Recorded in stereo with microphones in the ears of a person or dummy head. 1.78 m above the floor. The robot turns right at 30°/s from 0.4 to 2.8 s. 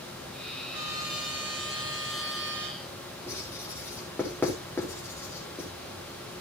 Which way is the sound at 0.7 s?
165° right.